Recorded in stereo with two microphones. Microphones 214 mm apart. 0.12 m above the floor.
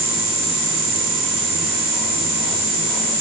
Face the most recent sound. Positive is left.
No sound to turn to.